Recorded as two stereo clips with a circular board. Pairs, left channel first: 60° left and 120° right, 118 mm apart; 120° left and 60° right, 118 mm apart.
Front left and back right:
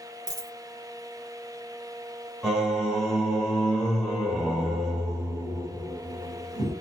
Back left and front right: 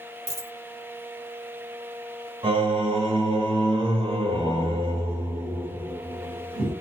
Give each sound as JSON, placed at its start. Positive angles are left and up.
{"t": 0.3, "sound": "a dropped coin", "azimuth_deg": -65, "distance_m": 1.0}
{"t": 2.4, "sound": "singing", "azimuth_deg": -35, "distance_m": 1.2}